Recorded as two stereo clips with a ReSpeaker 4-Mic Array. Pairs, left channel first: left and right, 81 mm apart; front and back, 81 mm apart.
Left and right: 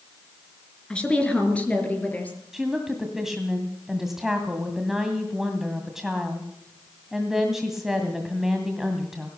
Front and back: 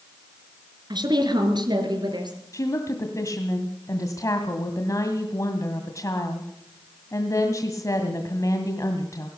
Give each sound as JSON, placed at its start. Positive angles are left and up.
{"t": 0.9, "sound": "a woman speaking", "azimuth_deg": 165, "distance_m": 3.5}
{"t": 2.5, "sound": "a woman speaking", "azimuth_deg": -5, "distance_m": 1.9}